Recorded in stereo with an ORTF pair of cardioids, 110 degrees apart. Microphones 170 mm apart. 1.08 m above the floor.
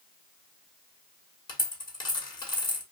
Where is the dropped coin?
25° left, 1.3 m.